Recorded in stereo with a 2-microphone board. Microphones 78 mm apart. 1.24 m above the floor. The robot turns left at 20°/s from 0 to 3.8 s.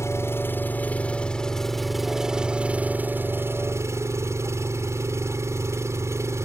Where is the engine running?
40° left; by 6.5 s 40° right.